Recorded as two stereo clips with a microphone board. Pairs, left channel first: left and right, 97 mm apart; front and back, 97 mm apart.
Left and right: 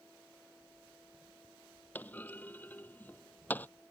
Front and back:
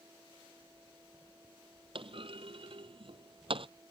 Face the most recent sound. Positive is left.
turn(degrees=160)